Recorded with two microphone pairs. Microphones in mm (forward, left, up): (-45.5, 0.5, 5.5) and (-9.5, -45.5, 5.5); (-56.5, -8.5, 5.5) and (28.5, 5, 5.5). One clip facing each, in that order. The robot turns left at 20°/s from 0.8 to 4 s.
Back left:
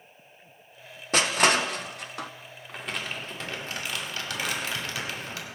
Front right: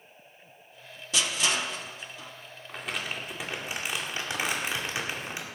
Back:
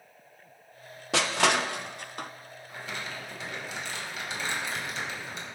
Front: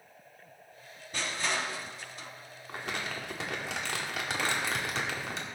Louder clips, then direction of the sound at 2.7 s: Even, front 2 dB; 40° left.